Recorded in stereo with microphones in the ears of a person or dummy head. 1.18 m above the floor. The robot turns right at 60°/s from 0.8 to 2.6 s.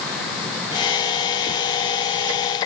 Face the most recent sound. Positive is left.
No sound to turn to.